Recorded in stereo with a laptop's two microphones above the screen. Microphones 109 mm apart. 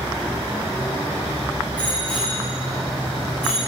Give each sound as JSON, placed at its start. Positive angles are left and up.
{"t": 1.8, "sound": "a bicycle bell", "side_deg": 15, "distance_m": 5.0}